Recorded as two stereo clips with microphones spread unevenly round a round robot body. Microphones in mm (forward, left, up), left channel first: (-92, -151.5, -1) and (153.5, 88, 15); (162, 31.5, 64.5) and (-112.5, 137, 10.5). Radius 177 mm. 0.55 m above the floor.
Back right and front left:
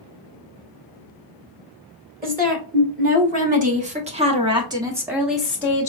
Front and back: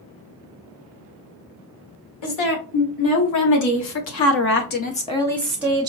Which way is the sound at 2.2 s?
20° right.